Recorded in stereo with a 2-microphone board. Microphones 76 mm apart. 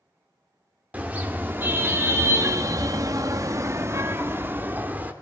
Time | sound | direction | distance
0.9 | a car horn | 20° right (ahead or behind) | 2.5 m